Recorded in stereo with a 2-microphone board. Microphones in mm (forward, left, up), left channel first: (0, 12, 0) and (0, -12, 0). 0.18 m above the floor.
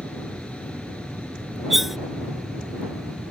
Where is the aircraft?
60° left (ahead or behind).